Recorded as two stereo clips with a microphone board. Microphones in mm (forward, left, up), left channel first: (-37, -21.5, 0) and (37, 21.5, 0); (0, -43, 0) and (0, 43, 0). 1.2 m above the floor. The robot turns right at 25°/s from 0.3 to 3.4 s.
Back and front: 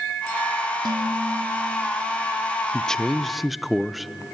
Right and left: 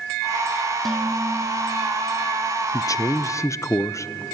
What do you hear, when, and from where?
0.8 s dishes clattering: straight ahead, 1.8 m; by 1.6 s 20° left, 1.8 m
2.7 s a man speaking: 75° right, 0.6 m; by 4.1 s 60° right, 0.6 m